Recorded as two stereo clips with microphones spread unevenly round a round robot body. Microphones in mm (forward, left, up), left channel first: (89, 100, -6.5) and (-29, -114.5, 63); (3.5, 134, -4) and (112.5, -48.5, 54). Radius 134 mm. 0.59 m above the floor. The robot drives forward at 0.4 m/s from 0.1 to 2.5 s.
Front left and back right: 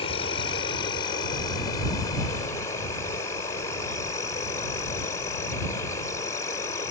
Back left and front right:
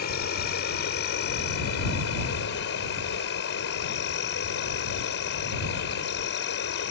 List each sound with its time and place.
0.0 s an insect: 115° left; by 6.9 s 130° left